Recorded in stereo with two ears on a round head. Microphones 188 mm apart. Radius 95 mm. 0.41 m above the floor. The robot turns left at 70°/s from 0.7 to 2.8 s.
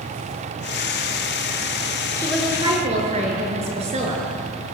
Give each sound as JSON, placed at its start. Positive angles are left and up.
{"t": 2.2, "sound": "a woman speaking", "azimuth_deg": 15, "distance_m": 7.0}